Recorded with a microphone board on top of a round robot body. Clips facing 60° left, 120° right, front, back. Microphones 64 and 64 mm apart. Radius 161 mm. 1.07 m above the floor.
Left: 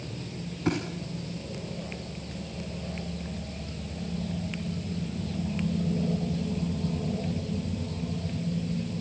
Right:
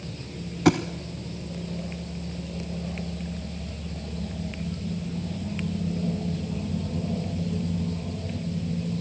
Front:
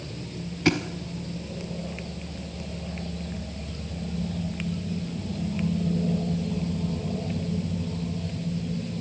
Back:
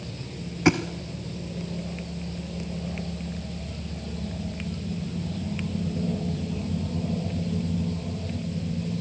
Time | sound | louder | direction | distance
0.7 | a thud | right 8 dB, back 2 dB | 115° right | 1.0 m